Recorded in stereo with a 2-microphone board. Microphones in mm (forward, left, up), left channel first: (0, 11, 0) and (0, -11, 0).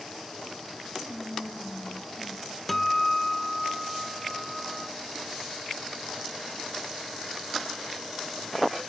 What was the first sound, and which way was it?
Whispering, 50° left (ahead or behind).